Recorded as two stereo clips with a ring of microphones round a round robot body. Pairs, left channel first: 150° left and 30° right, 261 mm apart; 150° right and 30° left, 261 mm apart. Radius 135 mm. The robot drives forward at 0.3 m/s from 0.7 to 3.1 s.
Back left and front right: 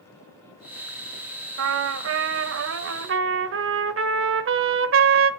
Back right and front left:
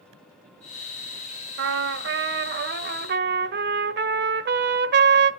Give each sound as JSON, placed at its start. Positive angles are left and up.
{"t": 1.6, "sound": "a trumpet", "azimuth_deg": -5, "distance_m": 1.6}